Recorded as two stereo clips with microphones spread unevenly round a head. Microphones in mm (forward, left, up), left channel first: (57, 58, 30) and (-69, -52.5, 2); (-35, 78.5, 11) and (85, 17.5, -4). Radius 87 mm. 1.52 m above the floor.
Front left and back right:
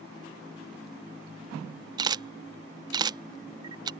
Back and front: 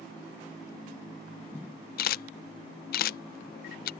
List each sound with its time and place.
2.0 s a camera shutter: 160° left